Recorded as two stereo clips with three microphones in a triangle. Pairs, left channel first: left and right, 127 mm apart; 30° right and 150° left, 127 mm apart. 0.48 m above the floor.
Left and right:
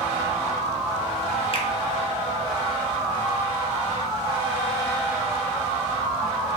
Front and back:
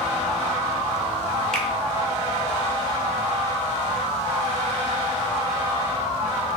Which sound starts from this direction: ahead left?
A finger snap, at 1.5 s.